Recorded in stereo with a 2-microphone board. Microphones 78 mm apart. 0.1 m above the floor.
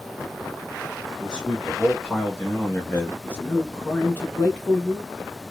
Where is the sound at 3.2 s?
25° left (ahead or behind), 1.3 m.